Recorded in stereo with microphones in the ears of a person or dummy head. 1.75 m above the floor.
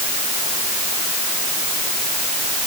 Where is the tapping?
No tapping in this recording.